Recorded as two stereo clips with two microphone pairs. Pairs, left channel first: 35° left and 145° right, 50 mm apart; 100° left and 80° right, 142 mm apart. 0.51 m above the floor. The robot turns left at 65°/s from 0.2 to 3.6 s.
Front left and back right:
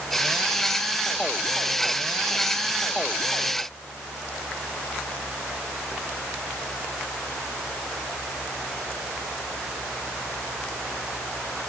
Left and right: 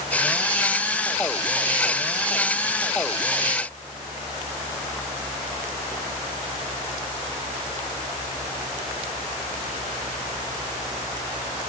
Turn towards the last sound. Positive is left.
No sound to turn to.